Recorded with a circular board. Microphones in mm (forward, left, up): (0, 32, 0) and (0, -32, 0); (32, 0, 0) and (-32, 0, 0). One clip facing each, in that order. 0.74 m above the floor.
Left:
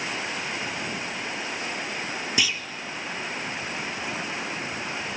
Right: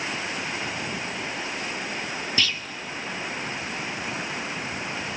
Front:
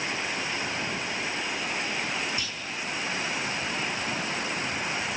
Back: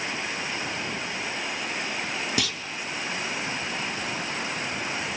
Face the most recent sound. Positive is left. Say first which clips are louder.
# even, back 6 dB
turn(degrees=165)